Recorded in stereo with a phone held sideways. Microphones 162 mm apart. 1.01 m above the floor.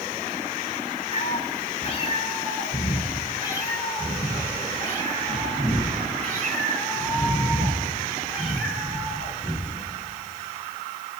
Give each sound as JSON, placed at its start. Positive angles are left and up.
{"t": 1.1, "sound": "a cat meowing", "side_deg": 50, "distance_m": 4.0}